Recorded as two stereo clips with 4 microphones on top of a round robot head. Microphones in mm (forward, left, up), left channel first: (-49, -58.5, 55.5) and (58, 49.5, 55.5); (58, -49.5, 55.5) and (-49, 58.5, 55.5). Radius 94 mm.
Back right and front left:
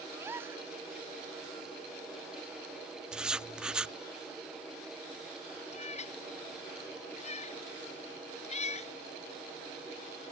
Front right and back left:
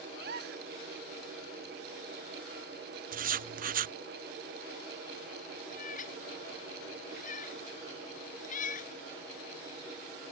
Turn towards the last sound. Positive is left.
turn(degrees=-85)